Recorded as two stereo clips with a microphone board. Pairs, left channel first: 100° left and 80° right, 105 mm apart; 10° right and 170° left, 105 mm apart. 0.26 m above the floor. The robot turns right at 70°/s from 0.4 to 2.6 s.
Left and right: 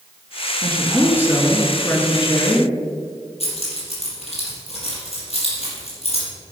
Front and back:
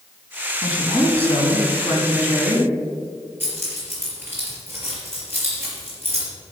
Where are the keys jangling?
100° left, 4.5 m.